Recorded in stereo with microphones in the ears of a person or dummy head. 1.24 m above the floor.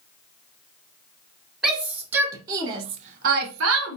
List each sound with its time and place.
1.6 s a shout: centre (ahead or behind), 1.5 m; by 4.0 s 80° right, 0.9 m